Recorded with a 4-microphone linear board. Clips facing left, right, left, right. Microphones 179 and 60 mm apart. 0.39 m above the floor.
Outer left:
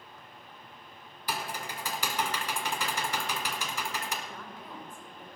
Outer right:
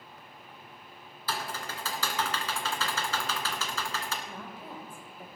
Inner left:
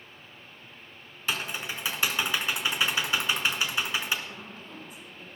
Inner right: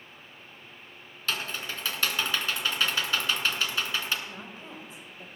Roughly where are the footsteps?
I don't hear footsteps.